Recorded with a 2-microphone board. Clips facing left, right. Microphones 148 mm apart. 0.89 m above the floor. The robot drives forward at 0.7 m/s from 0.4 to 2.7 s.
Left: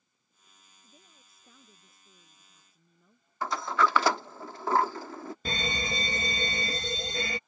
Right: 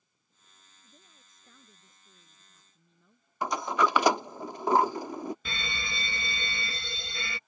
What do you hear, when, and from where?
0.8 s a woman speaking: 5° left (ahead or behind); by 4.4 s 10° left (ahead or behind)
3.4 s a sliding door: 15° right (ahead or behind)
5.5 s a fire alarm: 40° left (ahead or behind)